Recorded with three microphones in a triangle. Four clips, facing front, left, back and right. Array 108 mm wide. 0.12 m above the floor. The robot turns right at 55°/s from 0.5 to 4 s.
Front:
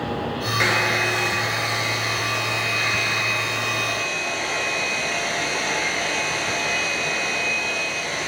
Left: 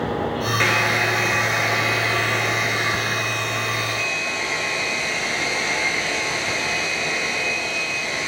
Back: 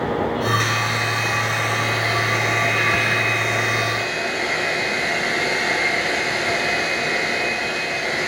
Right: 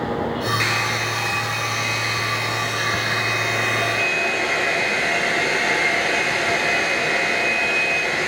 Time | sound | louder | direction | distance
0.6 | a hair dryer | left 3 dB, front 1 dB | 45° left | 0.8 m